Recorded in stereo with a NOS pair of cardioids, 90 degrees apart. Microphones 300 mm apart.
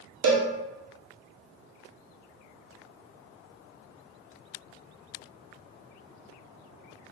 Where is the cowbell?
60° right, 0.7 m.